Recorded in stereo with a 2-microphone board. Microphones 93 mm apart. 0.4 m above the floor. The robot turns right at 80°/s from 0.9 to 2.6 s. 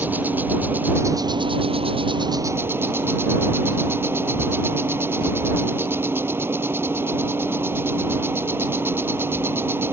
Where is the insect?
160° right; by 9.9 s 25° right.